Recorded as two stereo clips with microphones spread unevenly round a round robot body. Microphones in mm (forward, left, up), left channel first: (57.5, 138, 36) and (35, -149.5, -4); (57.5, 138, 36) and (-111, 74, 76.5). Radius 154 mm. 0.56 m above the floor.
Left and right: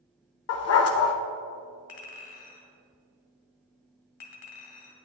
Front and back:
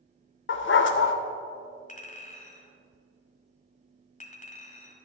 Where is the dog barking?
40° left, 0.7 m.